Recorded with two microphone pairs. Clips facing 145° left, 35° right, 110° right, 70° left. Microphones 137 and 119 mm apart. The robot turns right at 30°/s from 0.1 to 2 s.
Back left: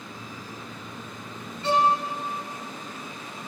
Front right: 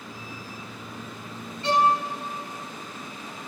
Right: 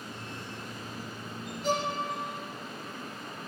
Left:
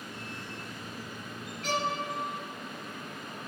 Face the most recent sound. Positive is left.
turn(degrees=70)